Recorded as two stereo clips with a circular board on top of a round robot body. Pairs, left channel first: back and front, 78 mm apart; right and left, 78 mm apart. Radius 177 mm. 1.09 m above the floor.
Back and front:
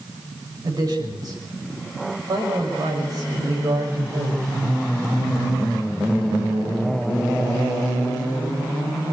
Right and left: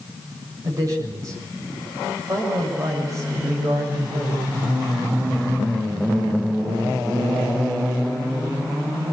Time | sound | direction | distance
0.6 | a man speaking | 45° left | 6.5 m